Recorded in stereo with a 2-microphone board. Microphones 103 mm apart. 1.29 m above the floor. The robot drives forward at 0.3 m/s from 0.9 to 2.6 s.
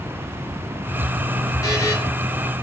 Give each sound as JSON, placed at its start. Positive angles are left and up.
{"t": 1.6, "sound": "a buzzer", "side_deg": 30, "distance_m": 1.1}